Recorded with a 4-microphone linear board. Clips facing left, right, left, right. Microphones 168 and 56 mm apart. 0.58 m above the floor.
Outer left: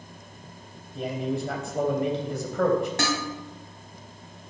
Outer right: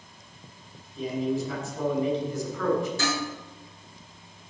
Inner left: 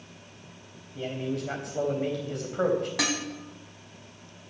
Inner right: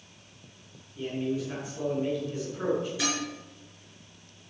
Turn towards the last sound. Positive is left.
turn(degrees=75)  # may be behind; listen again after turning